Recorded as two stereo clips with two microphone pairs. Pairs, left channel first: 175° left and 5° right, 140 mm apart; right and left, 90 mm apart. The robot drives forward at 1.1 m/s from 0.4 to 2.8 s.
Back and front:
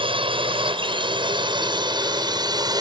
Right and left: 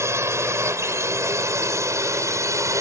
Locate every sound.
0.0 s a drone: 35° left; by 2.8 s 45° left